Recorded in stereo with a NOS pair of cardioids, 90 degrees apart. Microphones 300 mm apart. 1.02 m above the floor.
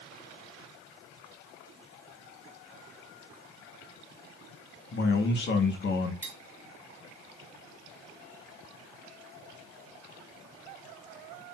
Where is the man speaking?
40° left, 1.2 m.